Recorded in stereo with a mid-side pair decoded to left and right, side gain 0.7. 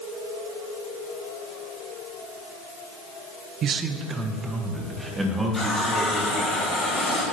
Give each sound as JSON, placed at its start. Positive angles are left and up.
{"t": 3.6, "sound": "a man speaking", "azimuth_deg": -45, "distance_m": 1.1}
{"t": 5.5, "sound": "a running tap", "azimuth_deg": 20, "distance_m": 6.0}